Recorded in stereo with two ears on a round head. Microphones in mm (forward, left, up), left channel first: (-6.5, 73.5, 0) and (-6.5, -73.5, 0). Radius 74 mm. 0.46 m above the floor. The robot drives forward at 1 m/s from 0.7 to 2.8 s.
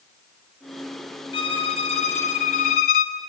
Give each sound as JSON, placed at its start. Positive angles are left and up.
{"t": 1.3, "sound": "a violin", "side_deg": 35, "distance_m": 3.0}